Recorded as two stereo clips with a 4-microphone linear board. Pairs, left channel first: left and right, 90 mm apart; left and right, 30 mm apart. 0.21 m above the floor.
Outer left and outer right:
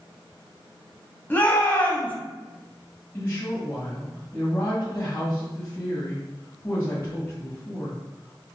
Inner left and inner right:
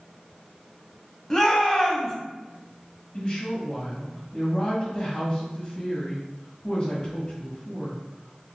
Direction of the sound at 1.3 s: 20° left (ahead or behind).